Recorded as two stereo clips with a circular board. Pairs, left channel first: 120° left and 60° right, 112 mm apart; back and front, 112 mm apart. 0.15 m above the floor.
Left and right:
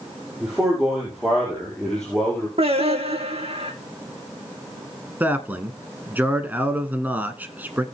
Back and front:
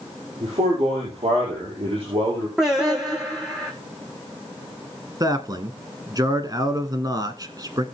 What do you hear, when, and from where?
0.4 s a man speaking: 25° left, 5.5 m; by 2.5 s 40° left, 5 m
2.6 s singing: 85° right, 2 m
5.2 s a man speaking: straight ahead, 1.4 m